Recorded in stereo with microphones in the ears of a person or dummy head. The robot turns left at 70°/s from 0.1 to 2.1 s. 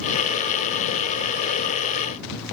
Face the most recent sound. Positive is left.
No sound to turn to.